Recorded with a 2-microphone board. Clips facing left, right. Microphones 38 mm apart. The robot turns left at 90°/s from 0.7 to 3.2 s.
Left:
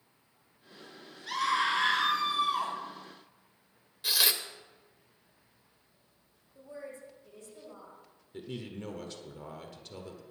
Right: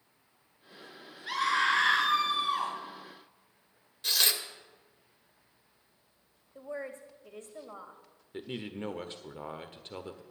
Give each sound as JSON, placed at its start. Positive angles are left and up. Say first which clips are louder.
{"t": 1.3, "sound": "a scream", "louder": "right 1 dB", "azimuth_deg": -25, "distance_m": 5.5}
{"t": 4.0, "sound": "tearing paper", "louder": "even", "side_deg": 5, "distance_m": 1.0}
{"t": 6.5, "sound": "a woman speaking", "louder": "right 5 dB", "side_deg": -55, "distance_m": 1.9}
{"t": 8.3, "sound": "a man speaking", "louder": "right 2 dB", "side_deg": -35, "distance_m": 1.0}